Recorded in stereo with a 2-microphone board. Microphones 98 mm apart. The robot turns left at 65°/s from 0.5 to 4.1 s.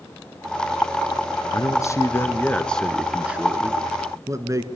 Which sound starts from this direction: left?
A man speaking, at 1.5 s.